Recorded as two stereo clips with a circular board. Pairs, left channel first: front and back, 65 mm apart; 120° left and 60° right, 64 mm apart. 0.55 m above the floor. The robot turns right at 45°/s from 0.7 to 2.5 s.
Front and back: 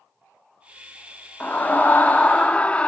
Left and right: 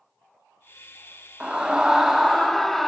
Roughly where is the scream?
Ahead.